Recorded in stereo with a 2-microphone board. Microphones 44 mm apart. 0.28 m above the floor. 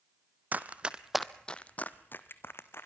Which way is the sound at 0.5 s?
40° right (ahead or behind).